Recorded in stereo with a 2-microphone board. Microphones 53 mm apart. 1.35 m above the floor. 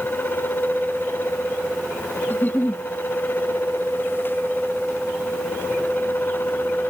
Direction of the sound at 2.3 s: 35° left (ahead or behind).